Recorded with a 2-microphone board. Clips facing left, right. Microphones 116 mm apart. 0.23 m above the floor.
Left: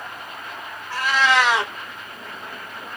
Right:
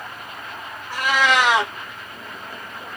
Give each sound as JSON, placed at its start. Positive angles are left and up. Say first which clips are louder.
{"t": 0.9, "sound": "a cat meowing", "louder": "even", "side_deg": -15, "distance_m": 1.1}